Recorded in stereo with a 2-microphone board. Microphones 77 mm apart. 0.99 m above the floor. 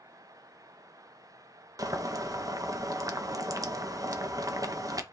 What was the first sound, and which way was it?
Boiling, 50° right (ahead or behind).